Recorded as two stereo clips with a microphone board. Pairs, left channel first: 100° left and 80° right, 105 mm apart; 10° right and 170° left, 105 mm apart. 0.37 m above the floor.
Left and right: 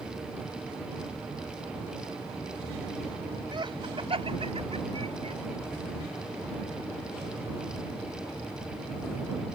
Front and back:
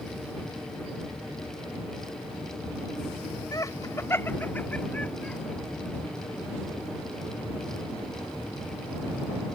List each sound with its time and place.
3.5 s laughter: 55° right; by 5.4 s 90° right